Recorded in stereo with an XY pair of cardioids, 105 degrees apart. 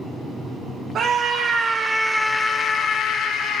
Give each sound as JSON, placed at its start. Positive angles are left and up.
{"t": 0.9, "sound": "a scream", "azimuth_deg": -65, "distance_m": 1.1}